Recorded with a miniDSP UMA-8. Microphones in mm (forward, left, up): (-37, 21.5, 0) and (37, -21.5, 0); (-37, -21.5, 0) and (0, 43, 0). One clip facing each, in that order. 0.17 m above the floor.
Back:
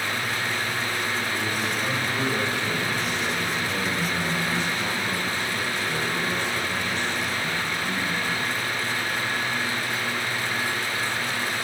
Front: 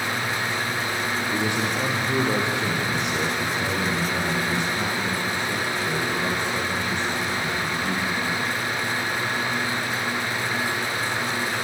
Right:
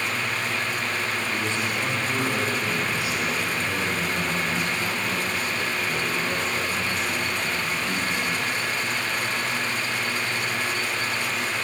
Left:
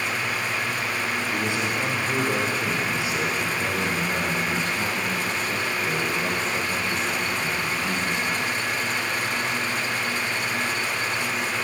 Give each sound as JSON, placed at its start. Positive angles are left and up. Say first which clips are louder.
{"t": 1.3, "sound": "a man speaking", "louder": "front 3 dB, left 1 dB", "azimuth_deg": -20, "distance_m": 6.0}